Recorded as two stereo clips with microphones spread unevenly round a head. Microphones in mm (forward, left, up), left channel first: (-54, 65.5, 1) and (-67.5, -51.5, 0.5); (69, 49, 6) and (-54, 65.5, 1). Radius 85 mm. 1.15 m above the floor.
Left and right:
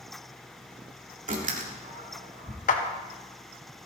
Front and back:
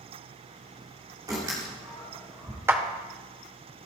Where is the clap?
100° left, 1.9 m.